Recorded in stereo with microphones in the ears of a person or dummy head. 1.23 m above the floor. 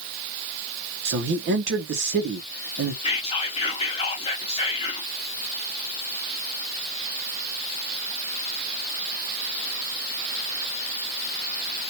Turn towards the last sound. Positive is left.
turn(degrees=35)  # may be behind; listen again after turning